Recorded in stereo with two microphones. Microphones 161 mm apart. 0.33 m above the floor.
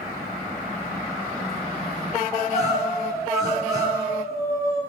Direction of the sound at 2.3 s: 25° right (ahead or behind).